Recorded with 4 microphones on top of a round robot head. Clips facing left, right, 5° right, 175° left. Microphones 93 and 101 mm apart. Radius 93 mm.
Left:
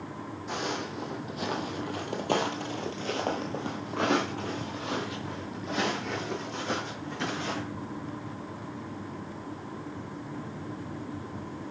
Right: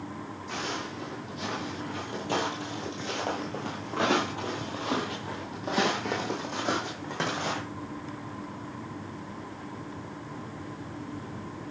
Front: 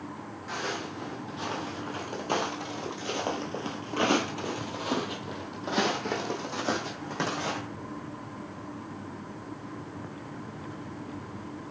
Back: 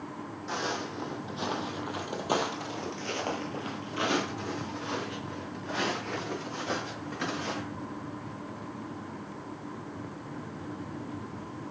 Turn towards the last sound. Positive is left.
turn(degrees=-40)